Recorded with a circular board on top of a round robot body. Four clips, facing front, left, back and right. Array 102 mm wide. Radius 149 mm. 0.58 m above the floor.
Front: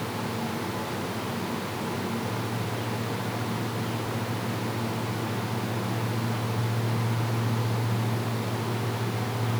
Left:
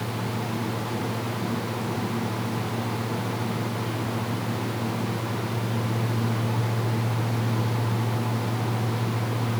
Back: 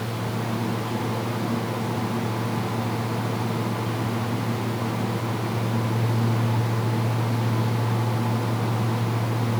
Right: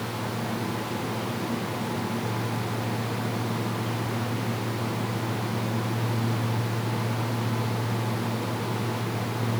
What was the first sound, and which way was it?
Only background noise.